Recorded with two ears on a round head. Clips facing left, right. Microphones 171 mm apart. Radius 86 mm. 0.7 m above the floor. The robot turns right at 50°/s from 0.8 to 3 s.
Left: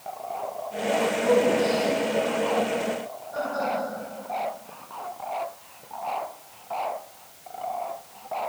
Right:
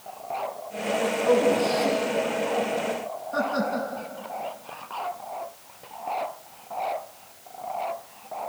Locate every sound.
1.2 s a man speaking: 10° left (ahead or behind), 6.5 m; by 3.9 s 75° right (ahead or behind), 6.5 m